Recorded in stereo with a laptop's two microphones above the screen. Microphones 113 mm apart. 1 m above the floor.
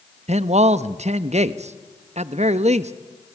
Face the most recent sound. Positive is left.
turn(degrees=-80)